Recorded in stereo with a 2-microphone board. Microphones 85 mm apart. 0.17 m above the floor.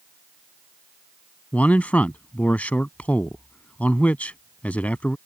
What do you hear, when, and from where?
1.5 s a man speaking: 20° left (ahead or behind)